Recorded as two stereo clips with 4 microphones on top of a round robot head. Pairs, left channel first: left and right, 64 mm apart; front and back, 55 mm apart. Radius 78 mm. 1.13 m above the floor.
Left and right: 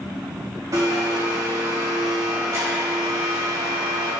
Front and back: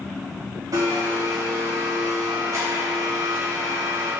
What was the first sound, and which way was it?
A blender, 140° right.